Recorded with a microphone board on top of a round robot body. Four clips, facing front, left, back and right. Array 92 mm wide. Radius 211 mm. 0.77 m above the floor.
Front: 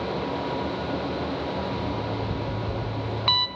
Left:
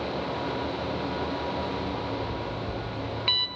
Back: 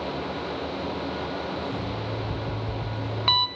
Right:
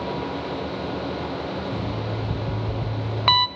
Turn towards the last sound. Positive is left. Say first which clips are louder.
# right 2 dB, front 2 dB
turn(degrees=-90)